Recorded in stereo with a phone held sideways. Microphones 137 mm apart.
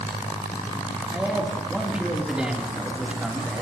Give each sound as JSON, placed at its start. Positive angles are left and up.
{"t": 1.1, "sound": "a man speaking", "side_deg": -5, "distance_m": 3.0}